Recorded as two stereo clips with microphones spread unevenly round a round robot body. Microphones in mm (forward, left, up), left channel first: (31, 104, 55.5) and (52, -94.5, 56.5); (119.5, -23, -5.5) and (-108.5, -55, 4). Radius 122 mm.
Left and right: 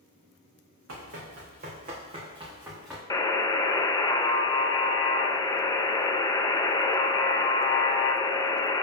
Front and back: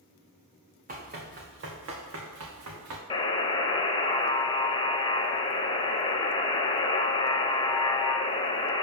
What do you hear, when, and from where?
0.9 s running footsteps: 120° right, 2 m; by 3.0 s 170° right, 2 m
3.1 s a buzzer: 45° left, 0.6 m